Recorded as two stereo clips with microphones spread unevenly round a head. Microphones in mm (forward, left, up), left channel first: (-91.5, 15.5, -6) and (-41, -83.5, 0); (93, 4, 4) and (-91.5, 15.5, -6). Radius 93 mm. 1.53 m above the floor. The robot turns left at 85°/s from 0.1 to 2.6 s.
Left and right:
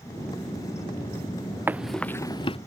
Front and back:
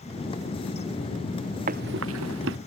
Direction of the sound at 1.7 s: 135° right.